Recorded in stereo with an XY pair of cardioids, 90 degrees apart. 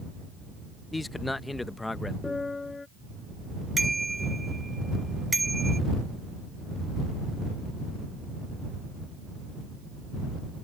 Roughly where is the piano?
Ahead left.